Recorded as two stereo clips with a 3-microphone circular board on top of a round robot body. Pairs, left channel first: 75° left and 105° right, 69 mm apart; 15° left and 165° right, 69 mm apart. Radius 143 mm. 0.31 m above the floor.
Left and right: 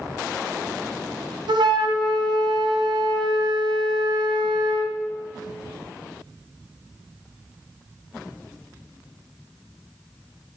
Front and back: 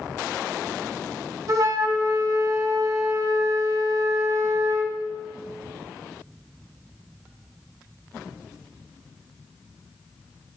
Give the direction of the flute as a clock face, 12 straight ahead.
4 o'clock.